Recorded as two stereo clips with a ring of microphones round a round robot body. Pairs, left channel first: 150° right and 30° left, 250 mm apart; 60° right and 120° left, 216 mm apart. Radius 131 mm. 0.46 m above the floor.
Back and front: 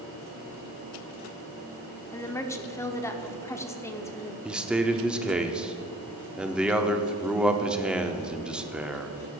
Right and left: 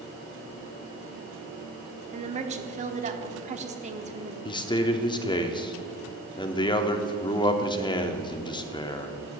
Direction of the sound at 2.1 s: 140° left.